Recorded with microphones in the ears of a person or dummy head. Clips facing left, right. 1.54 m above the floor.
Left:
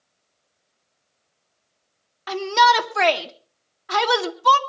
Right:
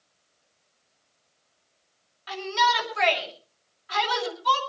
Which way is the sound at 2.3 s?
65° left (ahead or behind).